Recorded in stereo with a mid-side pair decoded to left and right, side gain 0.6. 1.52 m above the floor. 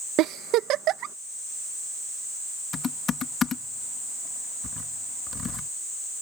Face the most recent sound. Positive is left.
turn(degrees=40)